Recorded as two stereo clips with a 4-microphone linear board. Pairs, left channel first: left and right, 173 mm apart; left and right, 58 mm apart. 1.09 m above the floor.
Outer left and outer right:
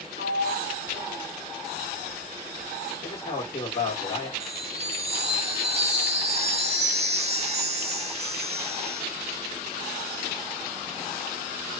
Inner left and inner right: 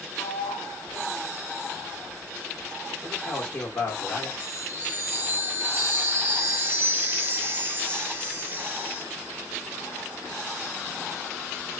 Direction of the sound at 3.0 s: 35° left (ahead or behind).